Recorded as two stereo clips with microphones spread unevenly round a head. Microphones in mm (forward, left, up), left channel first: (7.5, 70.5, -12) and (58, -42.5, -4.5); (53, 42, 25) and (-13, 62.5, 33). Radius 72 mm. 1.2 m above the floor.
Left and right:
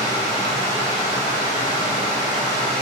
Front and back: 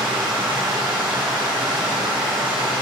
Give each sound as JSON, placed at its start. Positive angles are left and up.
{"t": 0.0, "sound": "running water", "azimuth_deg": 180, "distance_m": 1.2}